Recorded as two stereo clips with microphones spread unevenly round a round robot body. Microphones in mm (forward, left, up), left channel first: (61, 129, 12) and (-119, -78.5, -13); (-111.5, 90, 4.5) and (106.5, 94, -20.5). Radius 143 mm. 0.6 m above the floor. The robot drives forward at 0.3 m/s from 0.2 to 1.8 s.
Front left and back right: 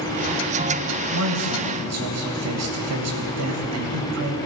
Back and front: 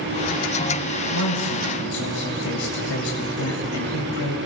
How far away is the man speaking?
About 2.5 m.